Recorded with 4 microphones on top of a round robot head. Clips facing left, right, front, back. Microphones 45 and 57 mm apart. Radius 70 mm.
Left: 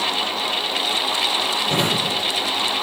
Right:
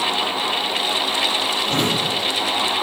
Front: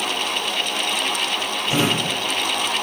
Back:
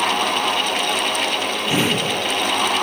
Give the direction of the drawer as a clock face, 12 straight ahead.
8 o'clock.